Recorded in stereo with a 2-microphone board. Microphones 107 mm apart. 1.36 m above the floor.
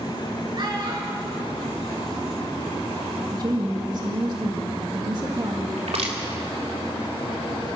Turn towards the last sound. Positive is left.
turn(degrees=-80)